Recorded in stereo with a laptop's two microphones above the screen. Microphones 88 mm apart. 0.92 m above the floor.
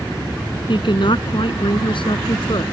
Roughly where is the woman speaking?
Left.